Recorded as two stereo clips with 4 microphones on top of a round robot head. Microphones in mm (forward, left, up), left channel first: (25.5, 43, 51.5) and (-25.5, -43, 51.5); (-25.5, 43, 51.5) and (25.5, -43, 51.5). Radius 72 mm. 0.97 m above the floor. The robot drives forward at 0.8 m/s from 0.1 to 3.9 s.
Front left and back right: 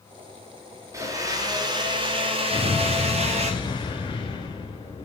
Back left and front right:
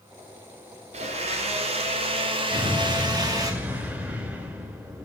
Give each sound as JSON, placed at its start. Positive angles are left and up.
{"t": 0.9, "sound": "a blender", "azimuth_deg": -60, "distance_m": 2.5}
{"t": 2.5, "sound": "an explosion", "azimuth_deg": 10, "distance_m": 4.5}